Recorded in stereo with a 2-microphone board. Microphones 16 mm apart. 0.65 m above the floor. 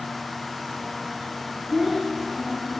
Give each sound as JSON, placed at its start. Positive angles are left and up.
{"t": 1.7, "sound": "a child speaking", "side_deg": -35, "distance_m": 3.0}